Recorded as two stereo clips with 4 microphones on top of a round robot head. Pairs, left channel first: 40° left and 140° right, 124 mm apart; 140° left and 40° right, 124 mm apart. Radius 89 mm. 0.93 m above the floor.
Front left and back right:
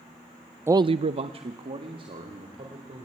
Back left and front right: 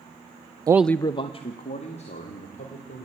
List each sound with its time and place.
0.7 s a man speaking: 80° right, 0.5 m; by 3.0 s 170° left, 3.5 m